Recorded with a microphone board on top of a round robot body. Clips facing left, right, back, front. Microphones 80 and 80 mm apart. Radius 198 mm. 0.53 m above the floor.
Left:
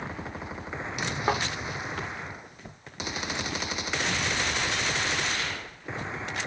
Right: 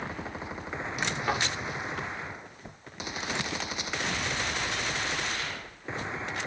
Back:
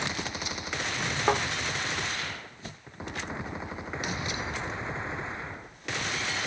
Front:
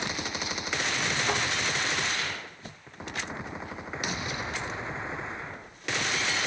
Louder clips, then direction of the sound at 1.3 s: Left 3 dB, back 6 dB; 150° left.